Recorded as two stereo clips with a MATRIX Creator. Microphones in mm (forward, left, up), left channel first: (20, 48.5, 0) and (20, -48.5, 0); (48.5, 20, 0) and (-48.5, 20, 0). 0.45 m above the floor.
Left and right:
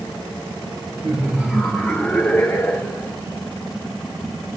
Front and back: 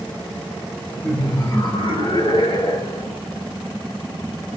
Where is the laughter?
50° right, 0.8 m; by 3.1 s 25° left, 2 m.